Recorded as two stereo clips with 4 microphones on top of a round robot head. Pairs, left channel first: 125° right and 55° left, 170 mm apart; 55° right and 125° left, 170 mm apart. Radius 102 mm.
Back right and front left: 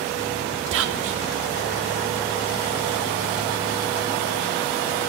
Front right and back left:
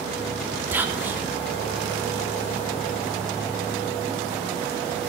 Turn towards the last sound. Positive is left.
turn(degrees=45)